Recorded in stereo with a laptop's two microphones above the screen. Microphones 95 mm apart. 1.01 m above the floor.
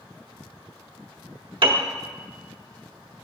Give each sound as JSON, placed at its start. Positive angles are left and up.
{"t": 1.6, "sound": "a piano", "side_deg": -60, "distance_m": 0.8}